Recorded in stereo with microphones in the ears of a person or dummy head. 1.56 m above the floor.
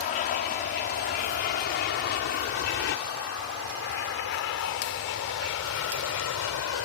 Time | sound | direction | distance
0.0 | an aircraft | 45° left (ahead or behind) | ?